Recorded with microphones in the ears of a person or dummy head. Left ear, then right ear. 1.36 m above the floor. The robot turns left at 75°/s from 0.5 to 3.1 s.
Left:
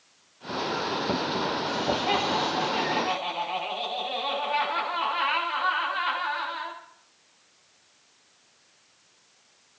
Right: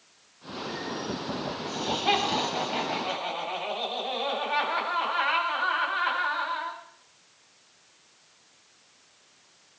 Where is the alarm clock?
No alarm clock in this recording.